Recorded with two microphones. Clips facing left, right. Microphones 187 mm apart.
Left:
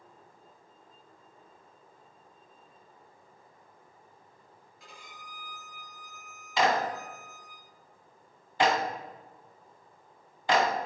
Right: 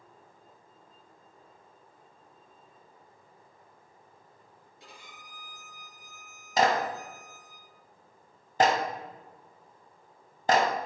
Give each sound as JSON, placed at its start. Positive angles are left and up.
{"t": 4.8, "sound": "a violin", "side_deg": -30, "distance_m": 4.0}
{"t": 6.6, "sound": "a clap", "side_deg": -45, "distance_m": 1.4}